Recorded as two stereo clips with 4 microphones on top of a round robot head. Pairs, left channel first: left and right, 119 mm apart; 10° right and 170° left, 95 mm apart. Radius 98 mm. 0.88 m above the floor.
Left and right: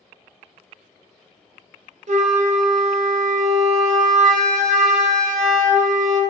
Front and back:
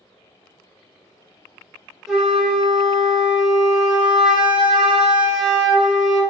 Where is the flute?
100° right, 0.5 m.